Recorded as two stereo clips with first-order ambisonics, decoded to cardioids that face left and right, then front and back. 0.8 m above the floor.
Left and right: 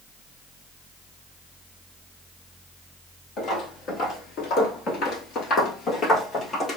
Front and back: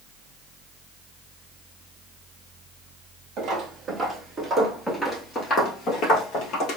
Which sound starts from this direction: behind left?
Footsteps, at 3.4 s.